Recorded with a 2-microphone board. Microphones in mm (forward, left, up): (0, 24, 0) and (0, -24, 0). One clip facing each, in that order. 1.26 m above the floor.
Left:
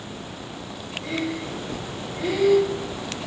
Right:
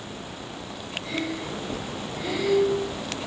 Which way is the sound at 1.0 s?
40° left (ahead or behind).